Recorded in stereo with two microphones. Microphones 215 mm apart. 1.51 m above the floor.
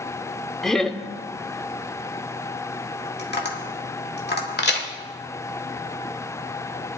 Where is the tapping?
50° left (ahead or behind), 1.8 m.